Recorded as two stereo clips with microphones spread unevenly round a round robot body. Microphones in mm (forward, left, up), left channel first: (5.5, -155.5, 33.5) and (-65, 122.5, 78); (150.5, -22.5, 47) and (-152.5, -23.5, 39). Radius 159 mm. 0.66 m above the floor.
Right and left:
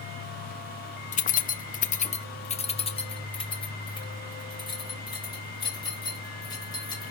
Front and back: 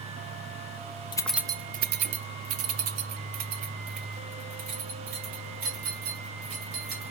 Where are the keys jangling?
65° right, 0.5 m; by 7.1 s 150° right, 4 m.